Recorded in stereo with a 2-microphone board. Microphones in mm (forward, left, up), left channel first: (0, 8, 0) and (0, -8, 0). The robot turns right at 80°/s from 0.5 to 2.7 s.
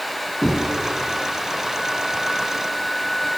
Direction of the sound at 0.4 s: 50° right (ahead or behind).